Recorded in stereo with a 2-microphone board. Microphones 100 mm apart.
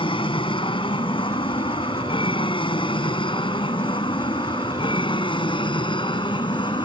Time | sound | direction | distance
0.0 | an aircraft | 60° left (ahead or behind) | ?